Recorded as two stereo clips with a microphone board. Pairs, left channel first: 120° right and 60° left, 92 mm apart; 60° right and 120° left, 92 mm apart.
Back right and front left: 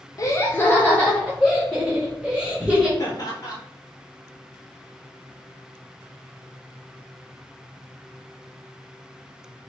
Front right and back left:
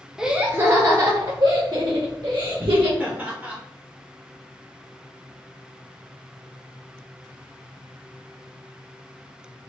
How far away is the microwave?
I don't hear a microwave.